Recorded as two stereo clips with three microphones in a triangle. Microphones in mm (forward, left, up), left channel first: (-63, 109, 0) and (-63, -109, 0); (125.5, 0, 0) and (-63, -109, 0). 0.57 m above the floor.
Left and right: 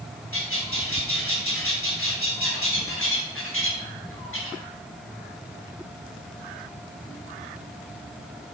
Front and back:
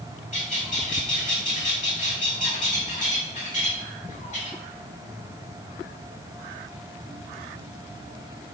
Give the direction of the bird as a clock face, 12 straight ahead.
9 o'clock.